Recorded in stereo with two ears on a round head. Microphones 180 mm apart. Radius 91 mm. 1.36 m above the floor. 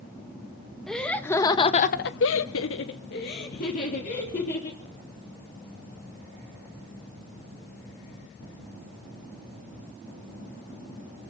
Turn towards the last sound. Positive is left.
turn(degrees=35)  # may be behind; listen again after turning